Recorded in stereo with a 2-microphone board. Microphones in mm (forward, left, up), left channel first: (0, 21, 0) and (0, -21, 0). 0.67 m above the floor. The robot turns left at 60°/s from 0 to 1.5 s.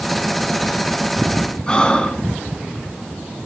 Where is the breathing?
20° left (ahead or behind), 1.4 m.